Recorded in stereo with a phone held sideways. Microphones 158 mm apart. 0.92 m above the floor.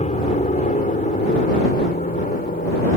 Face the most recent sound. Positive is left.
turn(degrees=65)  # may be behind; listen again after turning